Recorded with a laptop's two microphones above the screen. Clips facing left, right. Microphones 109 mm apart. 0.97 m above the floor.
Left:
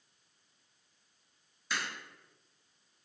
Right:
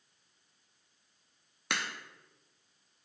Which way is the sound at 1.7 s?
65° right (ahead or behind).